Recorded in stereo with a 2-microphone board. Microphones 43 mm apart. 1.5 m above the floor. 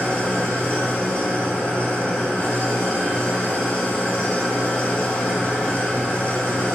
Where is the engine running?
30° left (ahead or behind), 0.8 m.